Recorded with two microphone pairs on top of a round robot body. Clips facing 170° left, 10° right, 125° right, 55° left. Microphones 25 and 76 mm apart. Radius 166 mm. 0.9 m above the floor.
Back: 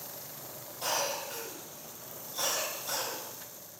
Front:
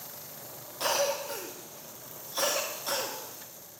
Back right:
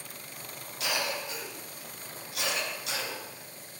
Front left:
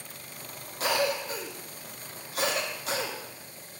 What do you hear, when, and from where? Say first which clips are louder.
0.8 s a cough: front 4 dB, front left 6 dB; 5° left, 2 m